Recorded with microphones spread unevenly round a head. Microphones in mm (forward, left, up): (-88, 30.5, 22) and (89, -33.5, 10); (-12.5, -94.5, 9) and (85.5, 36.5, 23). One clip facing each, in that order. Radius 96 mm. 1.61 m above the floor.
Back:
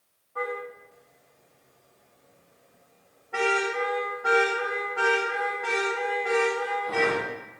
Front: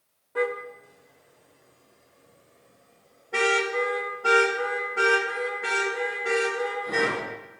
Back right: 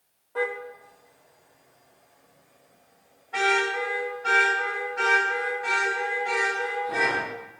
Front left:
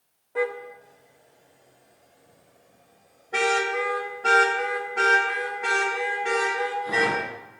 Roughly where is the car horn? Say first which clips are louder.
Front 5 dB, front left 2 dB; ahead.